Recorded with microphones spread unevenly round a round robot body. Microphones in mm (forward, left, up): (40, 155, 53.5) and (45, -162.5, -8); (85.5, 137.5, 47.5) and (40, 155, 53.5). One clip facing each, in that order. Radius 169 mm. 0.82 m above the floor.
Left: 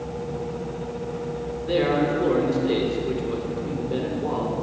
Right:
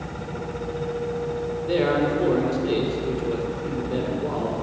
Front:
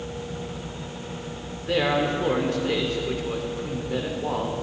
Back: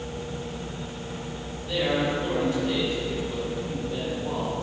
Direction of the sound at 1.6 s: 5° left.